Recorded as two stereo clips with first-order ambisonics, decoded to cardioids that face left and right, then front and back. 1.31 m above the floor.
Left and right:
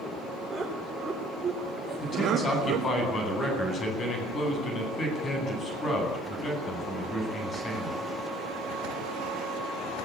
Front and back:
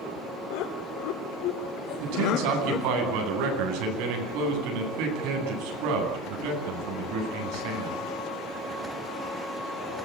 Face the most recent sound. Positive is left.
turn(degrees=155)